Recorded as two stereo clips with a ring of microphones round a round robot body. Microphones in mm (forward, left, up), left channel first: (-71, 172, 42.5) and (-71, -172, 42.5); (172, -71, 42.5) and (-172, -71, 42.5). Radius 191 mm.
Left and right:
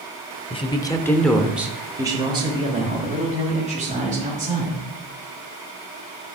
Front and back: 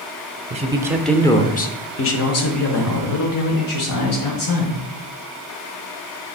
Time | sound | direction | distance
0.5 | a man speaking | 140° left | 0.9 m